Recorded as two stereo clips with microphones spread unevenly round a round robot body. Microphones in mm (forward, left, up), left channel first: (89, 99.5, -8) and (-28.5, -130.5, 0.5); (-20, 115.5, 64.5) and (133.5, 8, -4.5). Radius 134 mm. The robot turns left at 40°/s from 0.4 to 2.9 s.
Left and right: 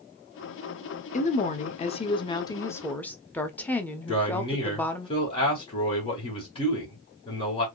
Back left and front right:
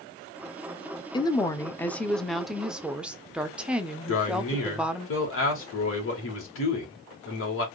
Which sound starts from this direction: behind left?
A man speaking, at 4.1 s.